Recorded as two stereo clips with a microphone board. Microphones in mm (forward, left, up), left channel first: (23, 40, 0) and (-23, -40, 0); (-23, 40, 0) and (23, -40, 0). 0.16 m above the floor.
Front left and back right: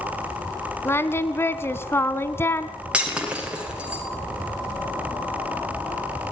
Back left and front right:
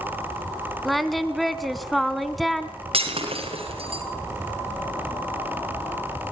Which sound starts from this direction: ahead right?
Breaking glass, at 2.9 s.